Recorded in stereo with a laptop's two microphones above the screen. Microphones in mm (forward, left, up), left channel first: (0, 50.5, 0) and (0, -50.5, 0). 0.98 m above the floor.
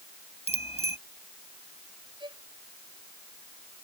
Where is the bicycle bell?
85° left.